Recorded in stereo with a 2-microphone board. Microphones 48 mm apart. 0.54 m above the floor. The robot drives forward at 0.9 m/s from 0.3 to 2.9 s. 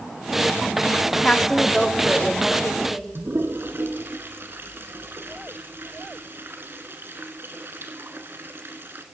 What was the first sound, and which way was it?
A woman speaking, 20° left (ahead or behind).